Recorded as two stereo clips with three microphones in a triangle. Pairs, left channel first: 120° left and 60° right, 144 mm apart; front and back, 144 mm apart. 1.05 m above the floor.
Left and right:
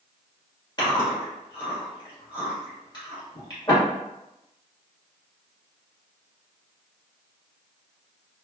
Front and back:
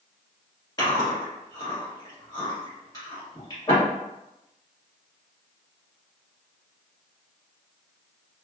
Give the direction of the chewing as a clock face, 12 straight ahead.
10 o'clock.